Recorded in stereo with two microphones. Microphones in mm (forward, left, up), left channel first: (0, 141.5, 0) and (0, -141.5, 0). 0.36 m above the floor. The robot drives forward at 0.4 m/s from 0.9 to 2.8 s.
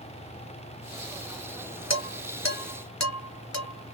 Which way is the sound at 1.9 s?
65° left (ahead or behind).